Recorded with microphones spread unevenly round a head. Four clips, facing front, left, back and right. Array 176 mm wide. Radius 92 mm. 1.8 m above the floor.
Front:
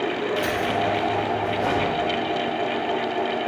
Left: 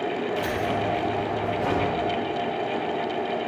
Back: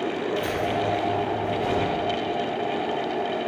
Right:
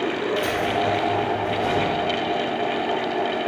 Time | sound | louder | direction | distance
0.4 | keys jangling | right 3 dB, front 2 dB | 20° left | 3 m